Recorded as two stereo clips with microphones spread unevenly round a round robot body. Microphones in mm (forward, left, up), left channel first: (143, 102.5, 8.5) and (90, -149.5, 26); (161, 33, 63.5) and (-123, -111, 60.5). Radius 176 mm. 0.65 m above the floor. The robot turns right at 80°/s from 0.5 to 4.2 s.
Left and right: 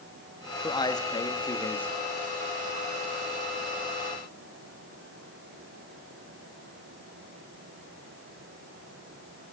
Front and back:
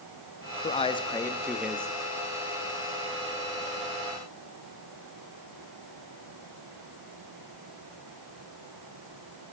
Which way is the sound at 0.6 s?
45° left.